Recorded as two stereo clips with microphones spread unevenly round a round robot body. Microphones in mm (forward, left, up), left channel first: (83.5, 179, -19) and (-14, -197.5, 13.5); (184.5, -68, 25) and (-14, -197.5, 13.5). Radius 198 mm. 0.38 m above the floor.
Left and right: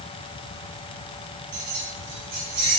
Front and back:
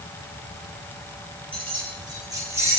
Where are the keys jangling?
80° right, 7.5 m; by 2.8 s 65° right, 8.5 m.